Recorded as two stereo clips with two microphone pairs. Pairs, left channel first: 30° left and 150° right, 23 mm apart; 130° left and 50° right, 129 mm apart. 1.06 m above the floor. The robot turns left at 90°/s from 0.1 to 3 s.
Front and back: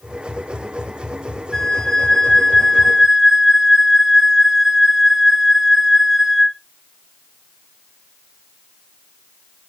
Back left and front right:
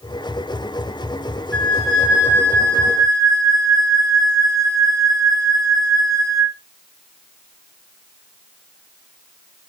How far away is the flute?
About 0.7 m.